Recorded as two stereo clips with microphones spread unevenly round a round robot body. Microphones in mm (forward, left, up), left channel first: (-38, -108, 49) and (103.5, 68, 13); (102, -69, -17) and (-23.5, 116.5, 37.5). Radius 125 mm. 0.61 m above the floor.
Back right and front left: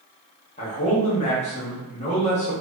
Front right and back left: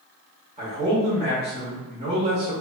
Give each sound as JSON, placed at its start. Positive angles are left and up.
{"t": 0.6, "sound": "a man speaking", "azimuth_deg": -170, "distance_m": 0.7}